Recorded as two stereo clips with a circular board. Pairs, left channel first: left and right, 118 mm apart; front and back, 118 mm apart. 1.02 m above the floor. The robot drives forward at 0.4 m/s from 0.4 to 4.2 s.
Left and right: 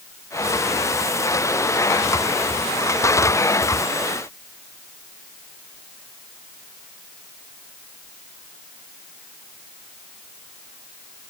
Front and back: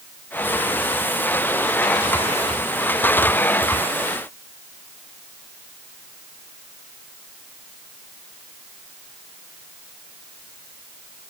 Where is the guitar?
No guitar in this recording.